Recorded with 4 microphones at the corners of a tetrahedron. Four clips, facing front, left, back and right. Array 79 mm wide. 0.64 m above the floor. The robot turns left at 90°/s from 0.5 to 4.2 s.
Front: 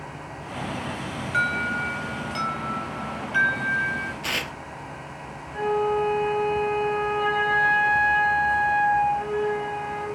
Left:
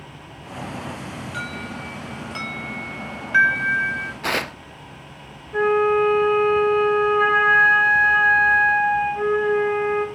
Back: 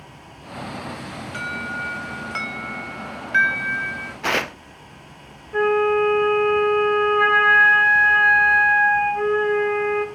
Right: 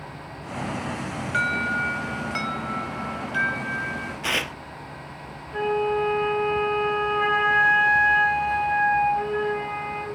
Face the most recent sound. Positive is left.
turn(degrees=155)